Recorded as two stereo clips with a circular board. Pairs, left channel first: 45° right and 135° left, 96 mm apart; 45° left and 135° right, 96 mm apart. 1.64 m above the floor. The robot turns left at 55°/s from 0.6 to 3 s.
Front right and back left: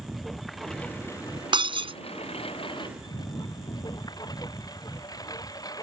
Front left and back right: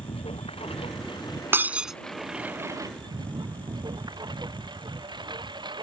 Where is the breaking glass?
160° left; by 2.0 s 135° left.